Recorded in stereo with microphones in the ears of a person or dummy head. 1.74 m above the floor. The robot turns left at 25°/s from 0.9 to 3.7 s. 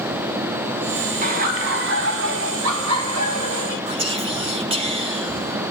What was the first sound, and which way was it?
Laughter, 45° right.